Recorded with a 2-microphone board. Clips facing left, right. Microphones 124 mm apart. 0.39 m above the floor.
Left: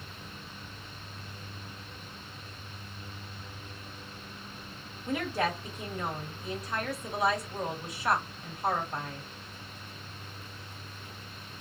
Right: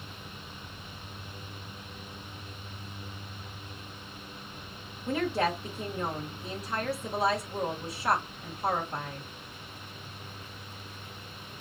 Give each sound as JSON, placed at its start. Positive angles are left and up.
{"t": 5.1, "sound": "a woman speaking", "side_deg": -30, "distance_m": 1.2}